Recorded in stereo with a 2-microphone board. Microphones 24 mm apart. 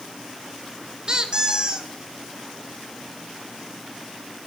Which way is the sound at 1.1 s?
35° right (ahead or behind).